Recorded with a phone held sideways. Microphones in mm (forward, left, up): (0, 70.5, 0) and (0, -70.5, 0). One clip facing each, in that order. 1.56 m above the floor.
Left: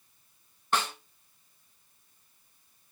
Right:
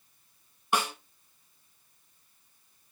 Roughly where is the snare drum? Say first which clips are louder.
Right 1 dB; centre.